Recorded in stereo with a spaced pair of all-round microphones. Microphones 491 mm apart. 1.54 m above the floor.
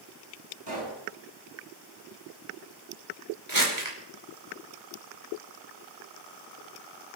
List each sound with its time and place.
0.7 s a pop: 55° right (ahead or behind), 7 m
3.5 s crumpling: 75° right (ahead or behind), 5.5 m